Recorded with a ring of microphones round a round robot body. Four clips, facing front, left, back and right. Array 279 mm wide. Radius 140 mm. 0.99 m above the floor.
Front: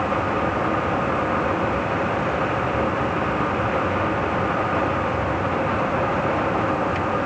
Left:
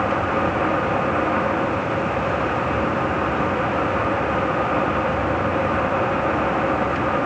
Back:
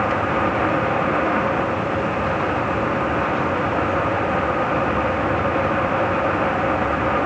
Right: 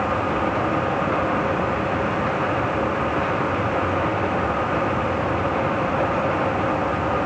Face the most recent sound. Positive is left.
No sound to turn to.